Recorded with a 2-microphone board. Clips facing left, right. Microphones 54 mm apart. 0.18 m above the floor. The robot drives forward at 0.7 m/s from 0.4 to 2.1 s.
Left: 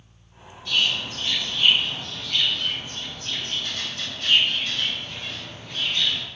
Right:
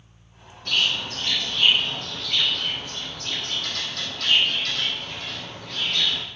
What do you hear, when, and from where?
0.7 s a bird: 55° right (ahead or behind), 3 m; by 6.2 s 75° right (ahead or behind), 2.5 m